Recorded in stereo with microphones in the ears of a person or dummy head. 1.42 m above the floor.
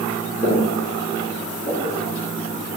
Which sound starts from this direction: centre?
Footsteps, at 0.4 s.